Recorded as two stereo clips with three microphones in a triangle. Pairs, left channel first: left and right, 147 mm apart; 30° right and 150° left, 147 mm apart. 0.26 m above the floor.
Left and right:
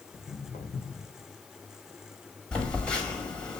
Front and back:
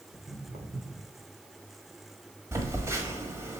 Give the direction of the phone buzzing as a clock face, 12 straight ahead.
7 o'clock.